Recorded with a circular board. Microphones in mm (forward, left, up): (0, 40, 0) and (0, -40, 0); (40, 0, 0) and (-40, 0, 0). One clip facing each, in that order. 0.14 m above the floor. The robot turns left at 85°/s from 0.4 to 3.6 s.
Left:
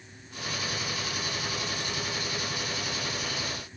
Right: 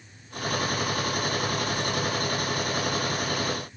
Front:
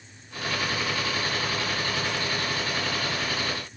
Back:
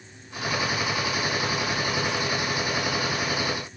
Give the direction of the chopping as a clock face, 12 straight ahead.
I don't hear chopping.